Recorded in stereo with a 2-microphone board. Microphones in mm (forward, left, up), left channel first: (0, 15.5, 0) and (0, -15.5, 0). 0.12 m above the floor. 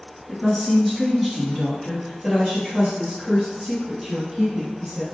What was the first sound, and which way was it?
A woman speaking, 10° left (ahead or behind).